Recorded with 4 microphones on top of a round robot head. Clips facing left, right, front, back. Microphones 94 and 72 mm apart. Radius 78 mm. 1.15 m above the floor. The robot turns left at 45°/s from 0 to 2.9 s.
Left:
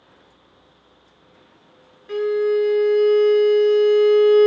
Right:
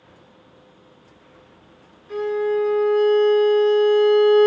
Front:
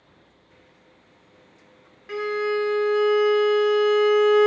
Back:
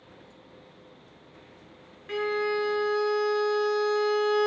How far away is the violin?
About 0.5 m.